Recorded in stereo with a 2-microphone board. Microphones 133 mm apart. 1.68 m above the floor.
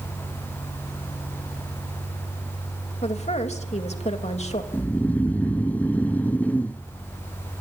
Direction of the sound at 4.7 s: 10° left (ahead or behind).